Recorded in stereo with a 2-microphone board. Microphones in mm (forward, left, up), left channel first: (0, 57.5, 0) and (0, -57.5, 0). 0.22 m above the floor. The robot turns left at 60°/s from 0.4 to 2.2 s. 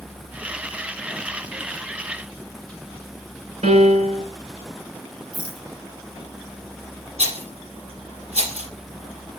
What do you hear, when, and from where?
3.6 s a piano: 75° right (ahead or behind), 1.7 m
5.3 s a rattle: centre (ahead or behind), 1.5 m
7.2 s a rattle: 65° right (ahead or behind), 2.5 m